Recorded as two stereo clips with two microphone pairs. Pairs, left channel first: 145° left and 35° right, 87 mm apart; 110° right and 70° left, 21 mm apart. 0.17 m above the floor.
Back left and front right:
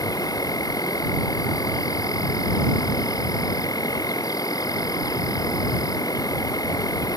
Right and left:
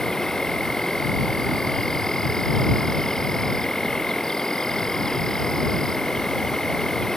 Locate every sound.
0.0 s an insect: 170° right